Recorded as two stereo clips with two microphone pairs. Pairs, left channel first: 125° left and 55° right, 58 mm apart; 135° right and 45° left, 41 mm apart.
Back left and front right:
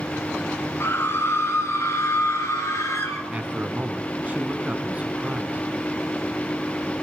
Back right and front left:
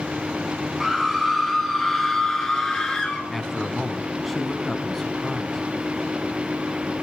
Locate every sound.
0.8 s a scream: 125° left, 1.7 m; by 3.2 s 145° left, 2.5 m
3.3 s a man speaking: 50° right, 1.2 m